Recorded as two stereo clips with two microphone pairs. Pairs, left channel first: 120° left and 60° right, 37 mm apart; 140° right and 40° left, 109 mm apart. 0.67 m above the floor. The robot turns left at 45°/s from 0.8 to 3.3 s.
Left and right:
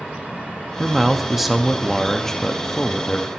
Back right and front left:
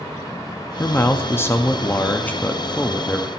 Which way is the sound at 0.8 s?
110° right.